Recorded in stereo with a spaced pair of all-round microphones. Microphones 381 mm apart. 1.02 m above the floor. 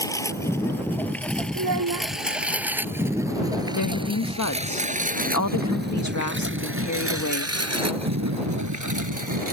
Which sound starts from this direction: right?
A child speaking, at 1.6 s.